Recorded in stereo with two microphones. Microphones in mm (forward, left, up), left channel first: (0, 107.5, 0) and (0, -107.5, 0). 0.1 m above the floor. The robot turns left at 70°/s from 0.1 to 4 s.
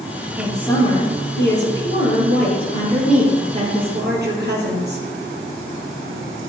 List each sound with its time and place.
0.4 s a woman speaking: 170° right, 3 m; by 5.0 s 65° right, 3 m